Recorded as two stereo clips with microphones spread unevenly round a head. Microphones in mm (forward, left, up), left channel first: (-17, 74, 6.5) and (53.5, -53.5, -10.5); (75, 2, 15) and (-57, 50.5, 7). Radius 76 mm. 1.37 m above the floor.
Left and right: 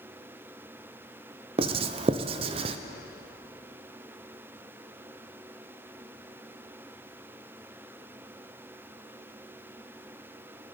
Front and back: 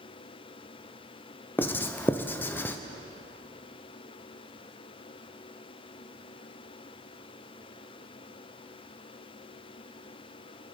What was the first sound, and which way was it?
Writing, 95° right.